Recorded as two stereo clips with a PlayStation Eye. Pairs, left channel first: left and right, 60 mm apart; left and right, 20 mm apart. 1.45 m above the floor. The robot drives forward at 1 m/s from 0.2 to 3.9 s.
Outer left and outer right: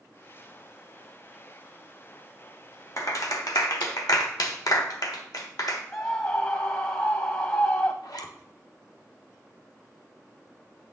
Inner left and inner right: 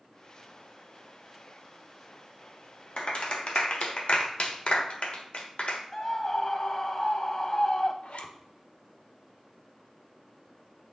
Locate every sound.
3.0 s a clap: 55° left (ahead or behind), 1.5 m; by 5.8 s 80° left, 1.3 m
5.9 s a scream: 40° left (ahead or behind), 0.5 m
8.0 s a zipper: 85° left, 0.9 m